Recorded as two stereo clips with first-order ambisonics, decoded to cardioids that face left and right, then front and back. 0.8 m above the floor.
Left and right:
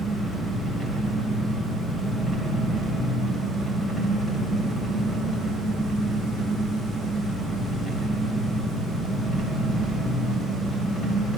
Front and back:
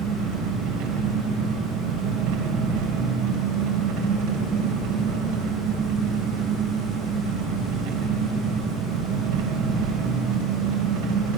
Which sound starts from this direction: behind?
An engine running, at 0.0 s.